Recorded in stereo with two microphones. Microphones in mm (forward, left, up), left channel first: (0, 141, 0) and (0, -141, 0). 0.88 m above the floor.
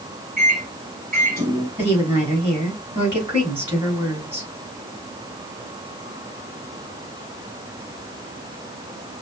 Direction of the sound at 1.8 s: 20° right (ahead or behind).